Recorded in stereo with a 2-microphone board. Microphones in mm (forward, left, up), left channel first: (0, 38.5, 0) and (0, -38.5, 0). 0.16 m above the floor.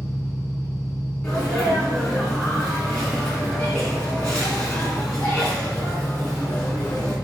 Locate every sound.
0.0 s an engine running: 45° right (ahead or behind), 1.5 m
1.2 s a sneeze: 10° left (ahead or behind), 1.4 m